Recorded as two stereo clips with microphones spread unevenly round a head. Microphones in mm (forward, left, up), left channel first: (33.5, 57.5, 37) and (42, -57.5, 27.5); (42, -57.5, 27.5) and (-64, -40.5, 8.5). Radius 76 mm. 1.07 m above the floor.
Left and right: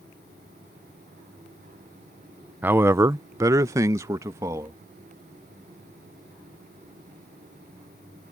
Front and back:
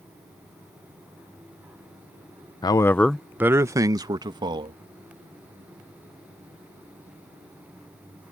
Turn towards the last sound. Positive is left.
turn(degrees=-155)